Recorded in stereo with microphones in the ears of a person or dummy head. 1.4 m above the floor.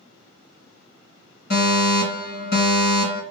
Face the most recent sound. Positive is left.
turn(degrees=50)  # may be behind; listen again after turning